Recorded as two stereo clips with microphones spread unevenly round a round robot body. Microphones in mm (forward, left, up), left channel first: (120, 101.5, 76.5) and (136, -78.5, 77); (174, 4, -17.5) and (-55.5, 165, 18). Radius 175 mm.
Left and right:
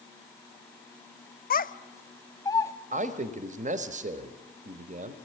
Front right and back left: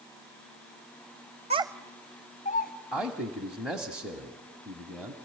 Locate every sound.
1.5 s a child speaking: 75° left, 1.0 m; by 2.7 s 20° left, 1.9 m
2.9 s a man speaking: 120° right, 1.4 m